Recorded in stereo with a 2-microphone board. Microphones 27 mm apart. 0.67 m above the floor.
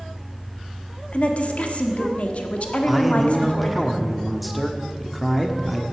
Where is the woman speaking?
50° left (ahead or behind), 1.6 m.